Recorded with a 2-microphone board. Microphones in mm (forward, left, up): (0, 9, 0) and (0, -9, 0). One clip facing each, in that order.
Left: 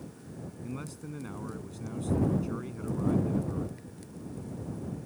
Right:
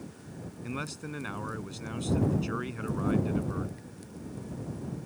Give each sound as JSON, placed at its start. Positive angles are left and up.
{"t": 0.6, "sound": "a man speaking", "side_deg": -50}